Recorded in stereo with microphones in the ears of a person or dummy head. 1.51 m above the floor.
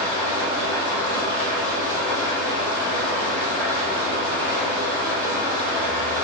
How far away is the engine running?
About 1.6 m.